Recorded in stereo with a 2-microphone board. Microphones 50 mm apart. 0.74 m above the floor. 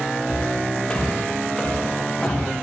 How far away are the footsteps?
About 7.5 m.